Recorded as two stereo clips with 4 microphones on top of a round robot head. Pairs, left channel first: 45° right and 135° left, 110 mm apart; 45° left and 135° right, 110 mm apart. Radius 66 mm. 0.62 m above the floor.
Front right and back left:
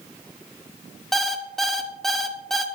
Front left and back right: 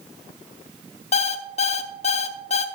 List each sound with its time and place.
1.1 s an alarm clock: 45° left, 0.6 m